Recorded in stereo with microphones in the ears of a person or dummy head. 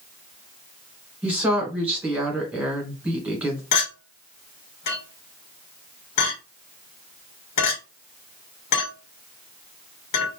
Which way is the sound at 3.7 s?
60° left (ahead or behind).